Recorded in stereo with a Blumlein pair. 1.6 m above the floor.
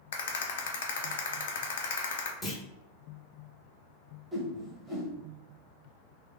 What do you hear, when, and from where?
0.1 s a rattle: 55° left, 0.6 m
2.4 s a clunk: 10° left, 0.7 m
4.3 s a whoosh: 10° right, 0.8 m